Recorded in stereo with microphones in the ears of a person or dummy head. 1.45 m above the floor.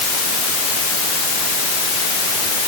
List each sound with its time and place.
Only background noise.